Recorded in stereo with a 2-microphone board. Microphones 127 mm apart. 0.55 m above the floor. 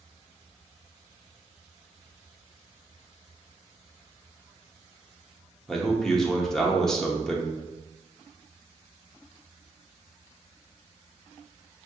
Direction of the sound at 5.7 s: 5° left (ahead or behind).